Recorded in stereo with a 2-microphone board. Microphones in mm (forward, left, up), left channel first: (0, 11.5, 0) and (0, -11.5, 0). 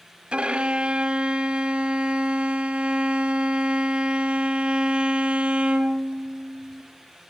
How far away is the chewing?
No chewing in this recording.